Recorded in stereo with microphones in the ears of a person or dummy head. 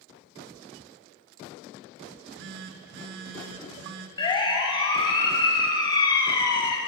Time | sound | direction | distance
2.1 | a phone buzzing | 65° right (ahead or behind) | 1.7 m
4.2 | a siren | 25° left (ahead or behind) | 6 m